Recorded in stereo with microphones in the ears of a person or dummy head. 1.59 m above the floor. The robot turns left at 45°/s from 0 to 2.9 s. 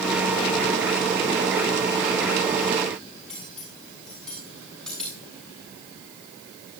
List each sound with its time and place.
3.3 s cutlery clinking: 5° left (ahead or behind), 7.5 m